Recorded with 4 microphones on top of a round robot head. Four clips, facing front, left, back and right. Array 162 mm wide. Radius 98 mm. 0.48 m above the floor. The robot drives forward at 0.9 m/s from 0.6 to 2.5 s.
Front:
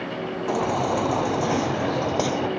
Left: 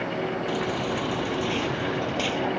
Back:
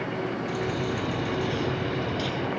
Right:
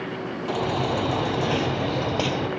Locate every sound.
0.5 s a baby crying: 25° right; by 2.5 s 30° right